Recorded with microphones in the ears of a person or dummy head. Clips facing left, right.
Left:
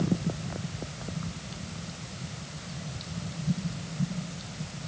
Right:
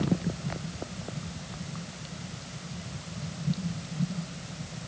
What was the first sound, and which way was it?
Only background noise.